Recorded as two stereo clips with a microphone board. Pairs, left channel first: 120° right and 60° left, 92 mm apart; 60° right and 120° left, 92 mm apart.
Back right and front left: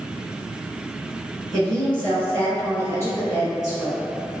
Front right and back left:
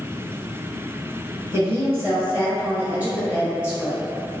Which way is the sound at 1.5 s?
160° left.